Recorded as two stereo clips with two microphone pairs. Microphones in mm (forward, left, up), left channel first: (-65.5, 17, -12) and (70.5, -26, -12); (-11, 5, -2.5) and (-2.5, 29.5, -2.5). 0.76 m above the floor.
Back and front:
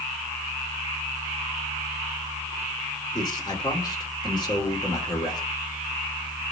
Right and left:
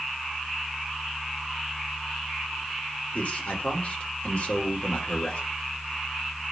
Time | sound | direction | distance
3.1 | a man speaking | 140° right | 3 m